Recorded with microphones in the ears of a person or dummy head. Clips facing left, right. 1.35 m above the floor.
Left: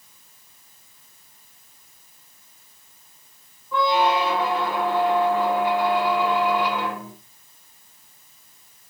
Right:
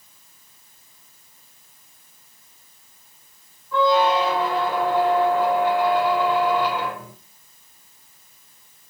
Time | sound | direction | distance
3.7 | a squeak | 5° right (ahead or behind) | 1.3 m